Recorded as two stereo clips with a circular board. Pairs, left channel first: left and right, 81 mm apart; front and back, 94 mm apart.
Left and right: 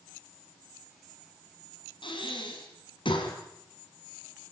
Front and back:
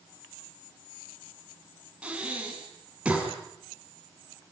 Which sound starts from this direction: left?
Breathing, at 2.0 s.